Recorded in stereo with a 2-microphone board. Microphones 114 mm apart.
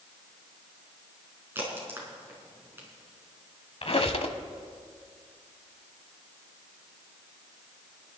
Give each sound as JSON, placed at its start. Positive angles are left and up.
{"t": 1.6, "sound": "a crack", "side_deg": -20, "distance_m": 4.5}
{"t": 3.8, "sound": "a squeak", "side_deg": 60, "distance_m": 1.1}